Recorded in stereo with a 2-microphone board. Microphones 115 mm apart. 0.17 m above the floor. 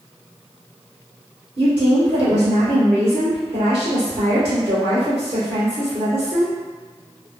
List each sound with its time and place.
1.6 s a woman speaking: 45° right (ahead or behind), 1.9 m